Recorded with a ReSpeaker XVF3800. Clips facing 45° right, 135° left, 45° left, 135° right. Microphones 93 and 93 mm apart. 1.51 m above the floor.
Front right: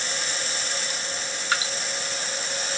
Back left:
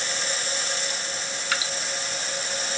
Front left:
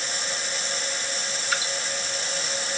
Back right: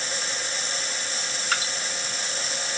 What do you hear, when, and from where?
1.5 s dripping: 105° right, 2 m